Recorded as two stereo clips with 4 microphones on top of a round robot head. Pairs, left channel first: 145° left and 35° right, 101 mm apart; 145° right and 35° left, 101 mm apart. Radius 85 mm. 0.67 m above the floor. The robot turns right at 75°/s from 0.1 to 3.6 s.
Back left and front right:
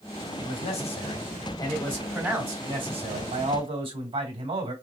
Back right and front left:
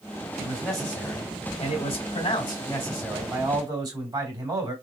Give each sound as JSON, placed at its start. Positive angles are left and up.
{"t": 0.4, "sound": "a man speaking", "azimuth_deg": 100, "distance_m": 2.5}